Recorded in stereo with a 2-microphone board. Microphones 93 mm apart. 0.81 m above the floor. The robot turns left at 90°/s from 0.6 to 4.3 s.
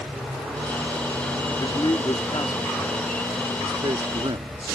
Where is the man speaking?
135° left; by 4.8 s 105° right.